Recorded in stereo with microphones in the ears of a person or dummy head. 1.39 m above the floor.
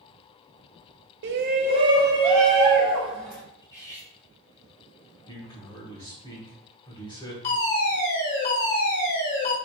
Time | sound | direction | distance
1.2 | a shout | 55° right (ahead or behind) | 0.6 m
3.6 | cutlery clinking | 15° left (ahead or behind) | 0.8 m
5.3 | a man speaking | 20° left (ahead or behind) | 1.0 m
7.4 | a fire alarm | 40° left (ahead or behind) | 1.8 m